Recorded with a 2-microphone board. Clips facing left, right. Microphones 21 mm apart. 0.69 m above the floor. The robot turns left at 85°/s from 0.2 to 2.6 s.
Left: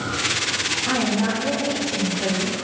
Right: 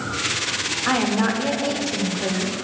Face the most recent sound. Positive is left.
turn(degrees=155)